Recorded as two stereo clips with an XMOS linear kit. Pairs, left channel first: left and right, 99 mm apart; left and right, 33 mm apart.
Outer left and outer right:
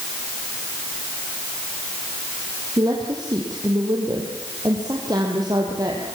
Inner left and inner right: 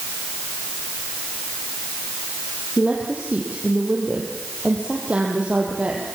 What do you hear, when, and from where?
2.8 s a woman speaking: 40° right (ahead or behind), 3.5 m